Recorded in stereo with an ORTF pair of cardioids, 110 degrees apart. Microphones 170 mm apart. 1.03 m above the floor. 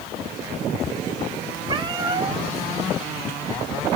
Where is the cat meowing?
25° right, 2.5 m.